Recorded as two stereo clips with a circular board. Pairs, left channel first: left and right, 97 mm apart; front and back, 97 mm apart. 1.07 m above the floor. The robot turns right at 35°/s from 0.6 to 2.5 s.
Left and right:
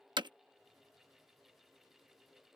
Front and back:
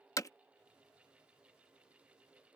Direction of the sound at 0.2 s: 55° right.